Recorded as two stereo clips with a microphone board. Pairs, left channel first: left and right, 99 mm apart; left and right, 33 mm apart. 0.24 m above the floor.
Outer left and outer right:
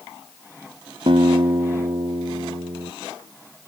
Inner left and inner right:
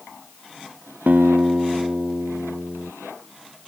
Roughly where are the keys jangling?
No keys jangling in this recording.